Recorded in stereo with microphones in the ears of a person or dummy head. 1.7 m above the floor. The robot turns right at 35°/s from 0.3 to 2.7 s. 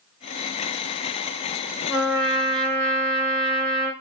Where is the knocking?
No knocking in this recording.